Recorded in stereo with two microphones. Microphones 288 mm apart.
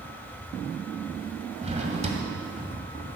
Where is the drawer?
25° right (ahead or behind), 1.8 m.